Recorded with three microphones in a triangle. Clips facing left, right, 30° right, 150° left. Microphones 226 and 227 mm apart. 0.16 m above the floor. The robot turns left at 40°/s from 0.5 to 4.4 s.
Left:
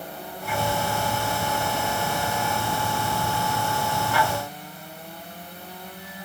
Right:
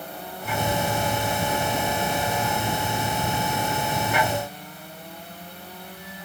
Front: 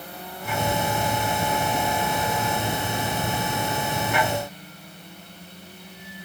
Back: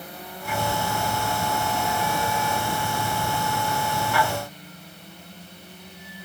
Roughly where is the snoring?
No snoring in this recording.